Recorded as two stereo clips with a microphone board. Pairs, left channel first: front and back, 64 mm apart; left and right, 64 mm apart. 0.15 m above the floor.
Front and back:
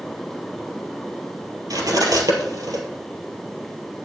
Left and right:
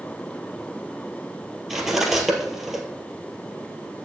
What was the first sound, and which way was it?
Cutlery clinking, 175° right.